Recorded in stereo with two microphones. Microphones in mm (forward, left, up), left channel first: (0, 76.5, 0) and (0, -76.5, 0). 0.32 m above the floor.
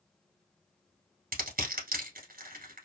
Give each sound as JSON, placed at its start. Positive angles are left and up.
{"t": 1.3, "sound": "crushing", "side_deg": -75, "distance_m": 1.3}